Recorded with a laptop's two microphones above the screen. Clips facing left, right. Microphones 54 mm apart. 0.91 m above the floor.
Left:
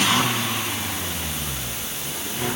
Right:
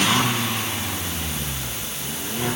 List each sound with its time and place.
Only background noise.